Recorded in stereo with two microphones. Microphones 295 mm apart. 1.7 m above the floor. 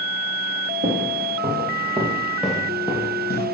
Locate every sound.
0.8 s footsteps: 40° right (ahead or behind), 3 m; by 3.5 s 35° left (ahead or behind), 2 m